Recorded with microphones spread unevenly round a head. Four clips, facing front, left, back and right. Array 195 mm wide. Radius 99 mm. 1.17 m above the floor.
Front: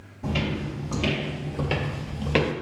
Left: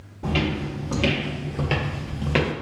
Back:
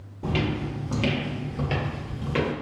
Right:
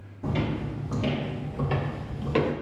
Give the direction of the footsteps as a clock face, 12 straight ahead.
8 o'clock.